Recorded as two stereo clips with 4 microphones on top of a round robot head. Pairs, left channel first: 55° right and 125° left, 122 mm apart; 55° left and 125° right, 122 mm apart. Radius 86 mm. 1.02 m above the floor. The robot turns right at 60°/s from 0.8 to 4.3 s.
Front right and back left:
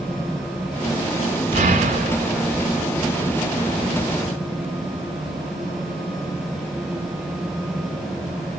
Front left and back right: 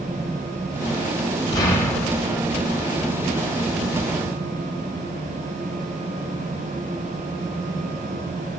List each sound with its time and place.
1.5 s an explosion: 105° left, 0.9 m; by 2.5 s 160° left, 0.9 m